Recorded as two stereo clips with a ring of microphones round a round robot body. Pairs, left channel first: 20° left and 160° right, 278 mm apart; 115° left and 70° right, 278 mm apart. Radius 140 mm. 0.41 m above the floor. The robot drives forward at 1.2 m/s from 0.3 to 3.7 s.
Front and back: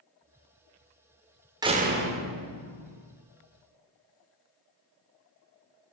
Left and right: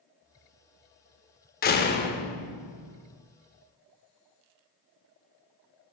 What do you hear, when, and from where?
1.6 s a door slam: 135° left, 0.6 m; by 3.1 s 175° left, 2 m